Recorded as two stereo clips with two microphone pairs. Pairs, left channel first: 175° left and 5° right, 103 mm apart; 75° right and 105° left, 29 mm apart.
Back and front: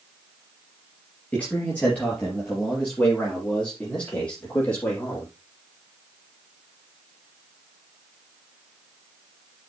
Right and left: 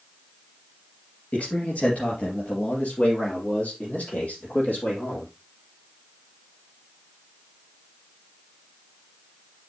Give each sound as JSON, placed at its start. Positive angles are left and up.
{"t": 1.3, "sound": "a man speaking", "azimuth_deg": -105, "distance_m": 3.5}